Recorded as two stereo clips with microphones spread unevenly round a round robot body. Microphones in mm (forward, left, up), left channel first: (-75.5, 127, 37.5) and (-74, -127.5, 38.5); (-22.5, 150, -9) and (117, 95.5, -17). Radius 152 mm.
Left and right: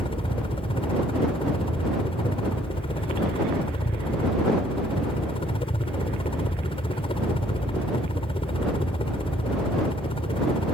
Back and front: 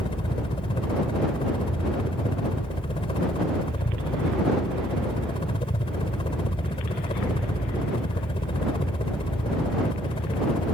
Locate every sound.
0.0 s a helicopter: 145° left